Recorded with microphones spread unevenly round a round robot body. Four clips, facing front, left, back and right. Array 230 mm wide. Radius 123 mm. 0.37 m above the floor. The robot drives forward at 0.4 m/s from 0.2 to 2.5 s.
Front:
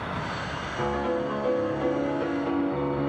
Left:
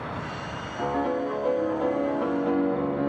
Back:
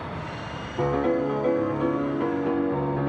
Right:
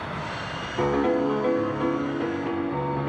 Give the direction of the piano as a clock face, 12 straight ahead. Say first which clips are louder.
Right 4 dB, back 4 dB; 4 o'clock.